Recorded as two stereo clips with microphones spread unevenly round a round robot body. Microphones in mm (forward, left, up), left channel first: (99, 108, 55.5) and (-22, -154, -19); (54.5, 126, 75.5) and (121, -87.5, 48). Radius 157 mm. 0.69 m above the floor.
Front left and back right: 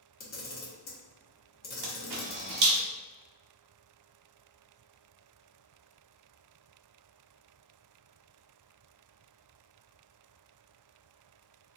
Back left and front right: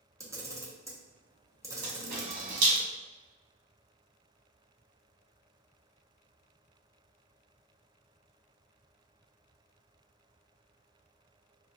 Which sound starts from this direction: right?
A camera shutter, at 1.8 s.